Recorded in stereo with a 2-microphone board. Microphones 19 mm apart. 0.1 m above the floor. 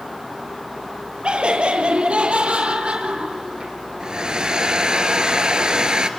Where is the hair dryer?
40° right (ahead or behind), 1.4 m.